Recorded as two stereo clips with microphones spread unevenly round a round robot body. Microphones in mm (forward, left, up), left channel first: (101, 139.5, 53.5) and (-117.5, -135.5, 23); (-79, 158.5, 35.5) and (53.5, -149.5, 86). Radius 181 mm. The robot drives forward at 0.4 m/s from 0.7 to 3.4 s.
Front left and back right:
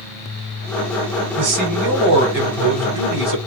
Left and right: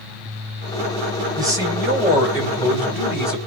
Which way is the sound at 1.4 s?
150° right.